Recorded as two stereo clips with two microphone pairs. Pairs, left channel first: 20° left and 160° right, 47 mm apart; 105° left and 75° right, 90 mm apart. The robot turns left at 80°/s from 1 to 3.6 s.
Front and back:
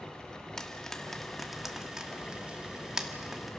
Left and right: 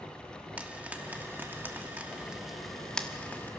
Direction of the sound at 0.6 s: 35° right.